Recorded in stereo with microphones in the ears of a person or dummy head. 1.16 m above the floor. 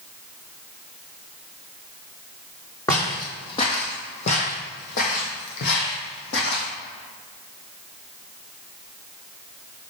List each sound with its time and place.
2.9 s footsteps: 20° left (ahead or behind), 2 m; by 6.7 s 60° left (ahead or behind), 2.5 m